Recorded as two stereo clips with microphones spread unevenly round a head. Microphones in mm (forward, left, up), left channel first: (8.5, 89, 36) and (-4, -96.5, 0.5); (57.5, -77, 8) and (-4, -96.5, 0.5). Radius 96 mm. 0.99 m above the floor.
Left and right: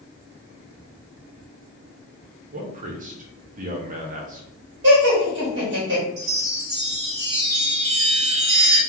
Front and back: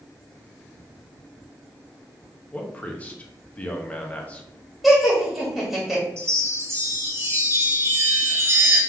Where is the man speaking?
50° right, 1.1 m.